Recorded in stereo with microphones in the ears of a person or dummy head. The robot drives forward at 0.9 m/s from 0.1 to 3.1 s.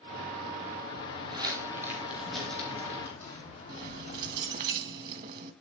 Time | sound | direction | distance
0.9 | footsteps | 40° right (ahead or behind) | 3 m
3.7 | keys jangling | 45° right (ahead or behind) | 1.1 m